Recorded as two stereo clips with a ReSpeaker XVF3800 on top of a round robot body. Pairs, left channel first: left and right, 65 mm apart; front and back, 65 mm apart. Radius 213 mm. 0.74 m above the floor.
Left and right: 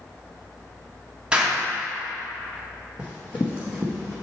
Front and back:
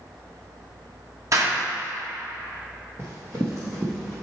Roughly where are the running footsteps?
Behind left.